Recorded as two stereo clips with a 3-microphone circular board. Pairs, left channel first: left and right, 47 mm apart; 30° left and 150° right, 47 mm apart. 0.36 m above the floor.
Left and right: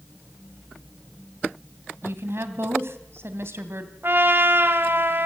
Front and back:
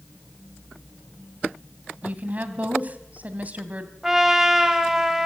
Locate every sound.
2.0 s a woman speaking: 100° right, 2.5 m
4.0 s a trumpet: 75° right, 2.0 m